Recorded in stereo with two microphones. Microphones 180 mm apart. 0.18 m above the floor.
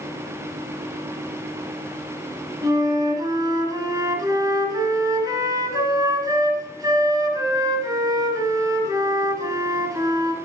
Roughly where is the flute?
Right.